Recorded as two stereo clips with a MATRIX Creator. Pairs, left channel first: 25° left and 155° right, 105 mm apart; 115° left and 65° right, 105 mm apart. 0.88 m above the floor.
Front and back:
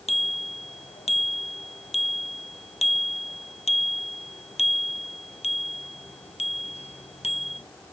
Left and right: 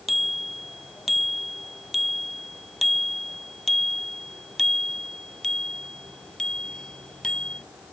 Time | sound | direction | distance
0.1 | a bicycle bell | 20° left | ?